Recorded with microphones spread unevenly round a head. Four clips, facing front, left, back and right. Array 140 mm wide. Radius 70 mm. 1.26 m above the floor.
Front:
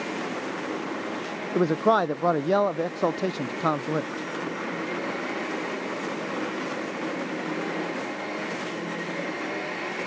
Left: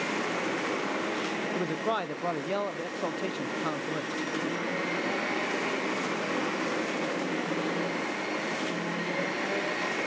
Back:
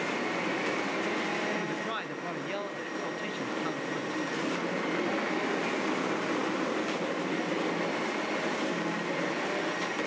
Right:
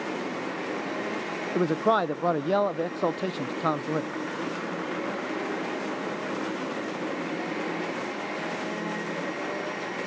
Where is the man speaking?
30° right, 0.6 m.